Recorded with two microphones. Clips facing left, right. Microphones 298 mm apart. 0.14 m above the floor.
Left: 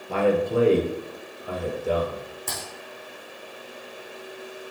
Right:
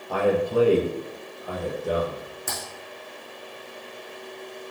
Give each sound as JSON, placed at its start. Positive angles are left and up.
{"t": 0.1, "sound": "a man speaking", "side_deg": 30, "distance_m": 2.5}
{"t": 2.5, "sound": "typing on a keyboard", "side_deg": -10, "distance_m": 4.5}